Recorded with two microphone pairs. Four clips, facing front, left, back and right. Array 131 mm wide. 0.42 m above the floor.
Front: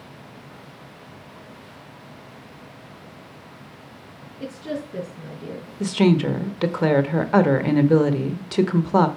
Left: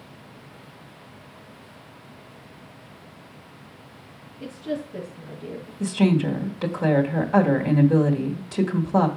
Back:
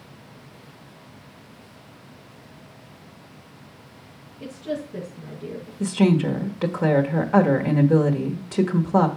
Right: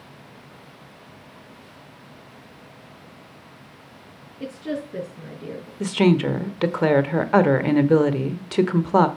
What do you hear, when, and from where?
4.4 s a woman speaking: 70° right, 5 m
5.8 s a woman speaking: 75° right, 1.0 m